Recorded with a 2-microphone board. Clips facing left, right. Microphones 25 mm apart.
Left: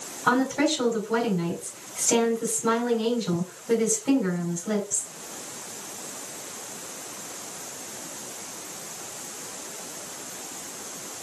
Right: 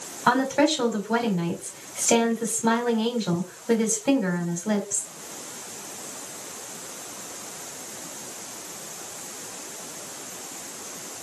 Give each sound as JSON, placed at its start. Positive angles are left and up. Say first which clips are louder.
{"t": 0.3, "sound": "a woman speaking", "louder": "right 2 dB", "side_deg": -40, "distance_m": 3.5}